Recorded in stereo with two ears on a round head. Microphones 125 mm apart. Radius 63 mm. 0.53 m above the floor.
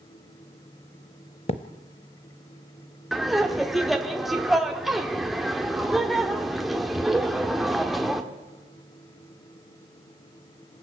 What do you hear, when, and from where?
1.5 s a thud: 45° left (ahead or behind), 0.8 m
3.1 s laughter: centre (ahead or behind), 1.3 m